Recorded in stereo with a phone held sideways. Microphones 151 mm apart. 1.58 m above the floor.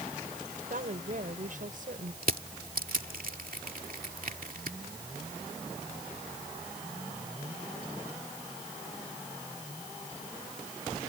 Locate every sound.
0.7 s a woman speaking: 65° right (ahead or behind)
2.2 s crushing: 70° right (ahead or behind)